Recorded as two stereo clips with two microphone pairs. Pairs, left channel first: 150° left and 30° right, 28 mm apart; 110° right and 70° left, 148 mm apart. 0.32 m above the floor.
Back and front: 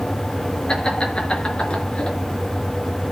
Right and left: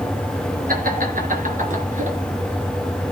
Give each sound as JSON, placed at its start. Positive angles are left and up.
{"t": 0.7, "sound": "laughter", "azimuth_deg": 90, "distance_m": 5.5}